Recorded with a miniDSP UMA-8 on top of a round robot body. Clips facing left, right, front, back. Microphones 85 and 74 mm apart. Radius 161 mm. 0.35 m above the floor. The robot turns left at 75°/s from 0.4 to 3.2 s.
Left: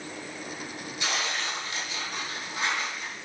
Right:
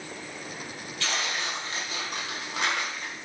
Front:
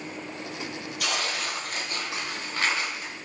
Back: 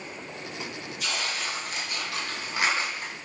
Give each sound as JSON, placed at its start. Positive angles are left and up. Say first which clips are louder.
{"t": 1.0, "sound": "tearing paper", "louder": "even, front 2 dB", "azimuth_deg": 15, "distance_m": 1.6}